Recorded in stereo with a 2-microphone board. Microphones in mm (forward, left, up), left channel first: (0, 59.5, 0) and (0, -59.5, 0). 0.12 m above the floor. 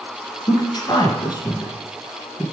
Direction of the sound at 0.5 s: 35° left (ahead or behind).